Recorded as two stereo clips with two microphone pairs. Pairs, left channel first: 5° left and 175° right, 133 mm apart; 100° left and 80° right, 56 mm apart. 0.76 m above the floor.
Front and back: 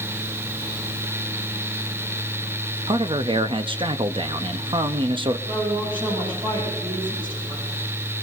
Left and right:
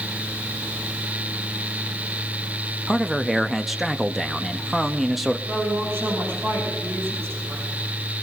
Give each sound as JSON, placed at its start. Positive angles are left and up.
{"t": 2.9, "sound": "a man speaking", "azimuth_deg": -165, "distance_m": 0.8}
{"t": 5.5, "sound": "a woman speaking", "azimuth_deg": -125, "distance_m": 9.5}